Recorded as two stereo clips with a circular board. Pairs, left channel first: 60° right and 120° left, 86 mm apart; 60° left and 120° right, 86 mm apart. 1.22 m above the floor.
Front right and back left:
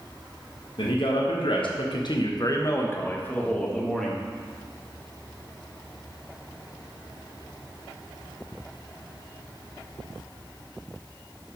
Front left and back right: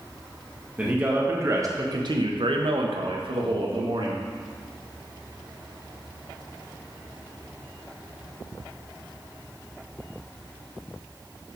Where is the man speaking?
45° right, 1.3 m; by 4.2 s 145° right, 1.7 m.